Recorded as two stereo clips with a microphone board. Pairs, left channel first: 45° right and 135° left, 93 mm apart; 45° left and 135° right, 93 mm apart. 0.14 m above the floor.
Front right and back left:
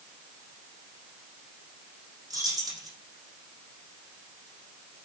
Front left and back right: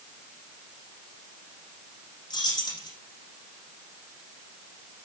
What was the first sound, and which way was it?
Keys jangling, 85° left.